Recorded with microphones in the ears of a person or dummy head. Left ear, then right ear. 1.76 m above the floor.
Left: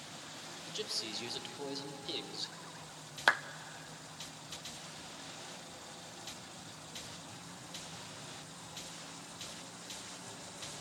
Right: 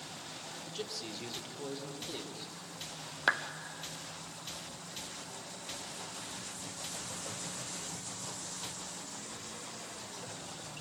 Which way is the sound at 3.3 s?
15° left (ahead or behind).